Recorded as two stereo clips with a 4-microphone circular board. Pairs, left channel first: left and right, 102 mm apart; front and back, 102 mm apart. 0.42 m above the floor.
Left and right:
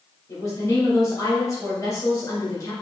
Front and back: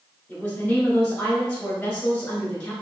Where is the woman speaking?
70° left, 1.5 m.